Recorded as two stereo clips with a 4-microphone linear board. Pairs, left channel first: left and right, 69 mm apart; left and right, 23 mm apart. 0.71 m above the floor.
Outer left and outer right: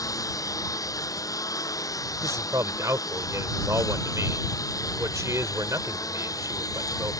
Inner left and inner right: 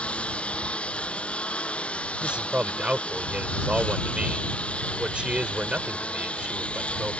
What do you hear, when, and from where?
0.0 s a lawn mower: 55° left (ahead or behind)
2.2 s a man speaking: 50° right (ahead or behind)